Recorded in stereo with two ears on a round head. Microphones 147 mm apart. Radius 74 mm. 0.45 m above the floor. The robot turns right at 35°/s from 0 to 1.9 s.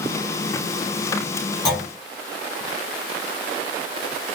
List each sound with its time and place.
1.6 s a clunk: 30° left (ahead or behind), 2 m; by 1.9 s 20° left (ahead or behind), 2 m